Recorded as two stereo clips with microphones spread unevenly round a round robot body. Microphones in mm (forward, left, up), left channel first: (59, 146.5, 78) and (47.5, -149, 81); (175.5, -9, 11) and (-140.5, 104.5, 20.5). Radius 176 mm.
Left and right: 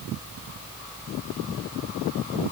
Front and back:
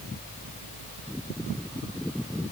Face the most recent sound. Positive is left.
No sound to turn to.